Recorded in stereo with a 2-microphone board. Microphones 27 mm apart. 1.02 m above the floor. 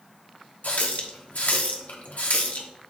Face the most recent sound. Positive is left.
turn(degrees=70)  # may be behind; listen again after turning